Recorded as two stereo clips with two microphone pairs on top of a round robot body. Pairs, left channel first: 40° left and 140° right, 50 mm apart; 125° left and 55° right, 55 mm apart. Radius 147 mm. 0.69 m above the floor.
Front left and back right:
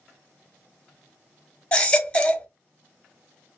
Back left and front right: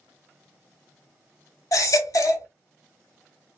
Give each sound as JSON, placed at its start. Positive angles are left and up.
{"t": 1.7, "sound": "a baby crying", "azimuth_deg": 110, "distance_m": 1.1}